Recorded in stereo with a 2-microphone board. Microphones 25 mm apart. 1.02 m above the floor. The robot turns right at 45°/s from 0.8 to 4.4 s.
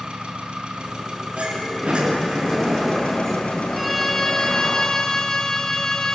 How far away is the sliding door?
About 9 m.